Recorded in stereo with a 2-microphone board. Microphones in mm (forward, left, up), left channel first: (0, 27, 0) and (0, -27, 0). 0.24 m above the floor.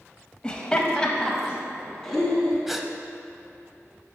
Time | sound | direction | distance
0.4 | laughter | 20° left (ahead or behind) | 1.1 m
2.7 | a gasp | 5° right (ahead or behind) | 0.6 m